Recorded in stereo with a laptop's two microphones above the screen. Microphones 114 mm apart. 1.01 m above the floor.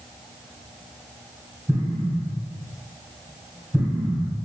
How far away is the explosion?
About 1.1 m.